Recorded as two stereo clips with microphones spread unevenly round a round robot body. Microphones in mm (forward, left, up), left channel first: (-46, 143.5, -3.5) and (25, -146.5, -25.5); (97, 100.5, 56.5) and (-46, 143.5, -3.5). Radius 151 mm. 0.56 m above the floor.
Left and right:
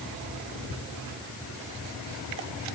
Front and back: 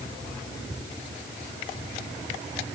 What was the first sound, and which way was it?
Only background noise.